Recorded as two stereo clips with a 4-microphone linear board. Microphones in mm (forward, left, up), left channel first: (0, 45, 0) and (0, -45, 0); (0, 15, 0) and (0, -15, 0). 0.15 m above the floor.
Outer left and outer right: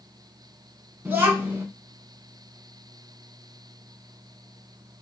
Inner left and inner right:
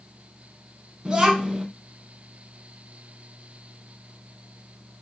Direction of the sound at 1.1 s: 20° right (ahead or behind).